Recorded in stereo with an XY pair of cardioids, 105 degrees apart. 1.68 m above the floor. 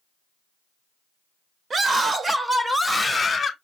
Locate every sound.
1.7 s a scream: 45° right, 1.0 m; by 3.5 s 25° left, 1.0 m